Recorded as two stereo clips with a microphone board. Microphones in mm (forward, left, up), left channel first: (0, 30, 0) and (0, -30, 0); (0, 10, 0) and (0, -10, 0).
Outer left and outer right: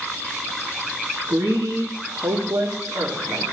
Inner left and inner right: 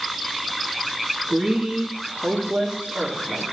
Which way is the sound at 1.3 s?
65° right (ahead or behind).